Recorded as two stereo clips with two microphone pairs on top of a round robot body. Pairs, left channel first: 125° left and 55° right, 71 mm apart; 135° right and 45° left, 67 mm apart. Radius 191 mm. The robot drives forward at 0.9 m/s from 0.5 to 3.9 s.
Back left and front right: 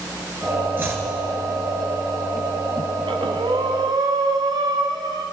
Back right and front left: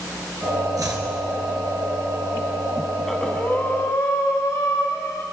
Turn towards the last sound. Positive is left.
turn(degrees=-90)